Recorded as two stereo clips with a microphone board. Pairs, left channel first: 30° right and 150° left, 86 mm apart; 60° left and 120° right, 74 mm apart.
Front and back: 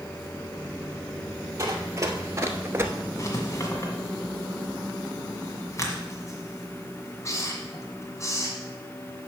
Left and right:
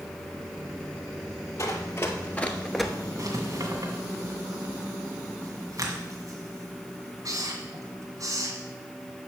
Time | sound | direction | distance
1.6 | running footsteps | 100° left | 1.6 m
3.2 | writing | 85° right | 1.8 m